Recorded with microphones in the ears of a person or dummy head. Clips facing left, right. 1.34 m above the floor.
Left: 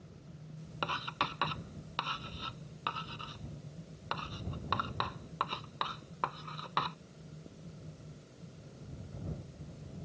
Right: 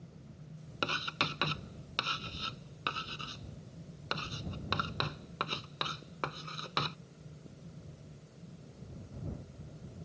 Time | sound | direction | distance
0.8 | writing | 30° right (ahead or behind) | ?